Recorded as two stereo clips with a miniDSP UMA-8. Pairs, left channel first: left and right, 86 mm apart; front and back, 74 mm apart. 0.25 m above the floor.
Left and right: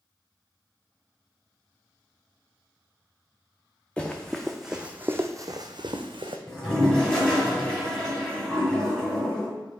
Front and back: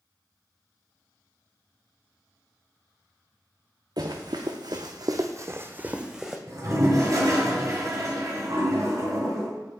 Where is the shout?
No shout in this recording.